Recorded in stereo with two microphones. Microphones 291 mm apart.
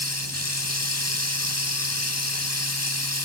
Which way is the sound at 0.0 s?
60° left (ahead or behind).